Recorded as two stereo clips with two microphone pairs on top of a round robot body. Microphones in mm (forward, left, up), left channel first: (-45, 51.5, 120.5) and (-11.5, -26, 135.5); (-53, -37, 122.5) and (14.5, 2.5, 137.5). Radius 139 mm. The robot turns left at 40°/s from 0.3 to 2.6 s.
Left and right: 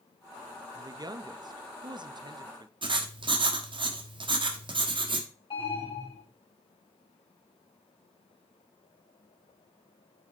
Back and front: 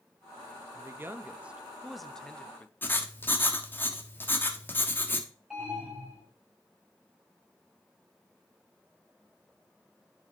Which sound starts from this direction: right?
Writing, at 2.8 s.